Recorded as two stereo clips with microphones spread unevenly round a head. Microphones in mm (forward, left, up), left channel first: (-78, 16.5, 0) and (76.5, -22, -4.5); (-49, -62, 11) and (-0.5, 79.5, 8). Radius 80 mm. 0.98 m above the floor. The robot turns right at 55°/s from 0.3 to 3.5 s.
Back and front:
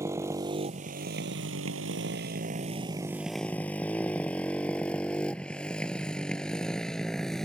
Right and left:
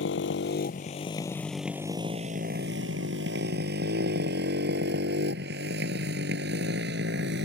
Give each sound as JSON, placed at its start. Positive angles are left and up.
{"t": 0.0, "sound": "a motorcycle", "azimuth_deg": -85}